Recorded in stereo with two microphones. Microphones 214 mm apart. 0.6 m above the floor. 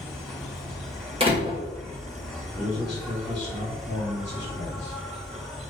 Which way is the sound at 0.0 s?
Centre (ahead or behind).